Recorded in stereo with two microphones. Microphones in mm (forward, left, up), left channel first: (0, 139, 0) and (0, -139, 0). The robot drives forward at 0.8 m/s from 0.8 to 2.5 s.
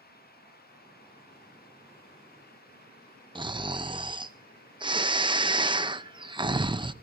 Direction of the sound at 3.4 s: 15° right (ahead or behind).